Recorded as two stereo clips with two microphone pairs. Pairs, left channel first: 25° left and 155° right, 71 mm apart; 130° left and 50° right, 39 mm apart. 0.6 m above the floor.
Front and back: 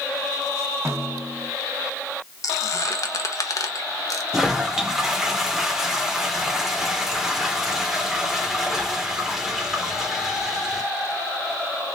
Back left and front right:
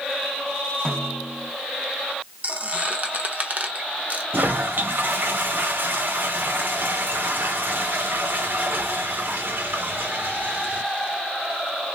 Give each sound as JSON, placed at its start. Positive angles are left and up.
{"t": 0.8, "sound": "a snare drum", "azimuth_deg": -160, "distance_m": 1.5}
{"t": 2.4, "sound": "a squeak", "azimuth_deg": -5, "distance_m": 0.7}
{"t": 4.3, "sound": "a toilet flushing", "azimuth_deg": -70, "distance_m": 0.7}